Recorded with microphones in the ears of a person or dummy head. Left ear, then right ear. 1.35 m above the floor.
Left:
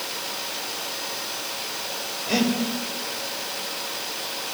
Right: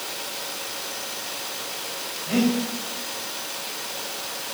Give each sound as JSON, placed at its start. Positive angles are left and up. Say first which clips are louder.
{"t": 2.3, "sound": "breathing", "louder": "even", "side_deg": 50, "distance_m": 3.0}